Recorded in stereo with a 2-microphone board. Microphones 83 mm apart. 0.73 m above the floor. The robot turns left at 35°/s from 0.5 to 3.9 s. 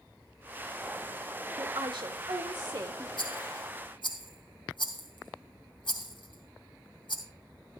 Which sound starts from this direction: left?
A rattle, at 3.2 s.